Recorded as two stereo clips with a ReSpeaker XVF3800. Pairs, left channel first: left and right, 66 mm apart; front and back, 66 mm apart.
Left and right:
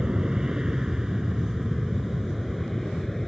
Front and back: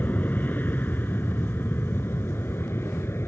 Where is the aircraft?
20° right; by 3.3 s 5° left.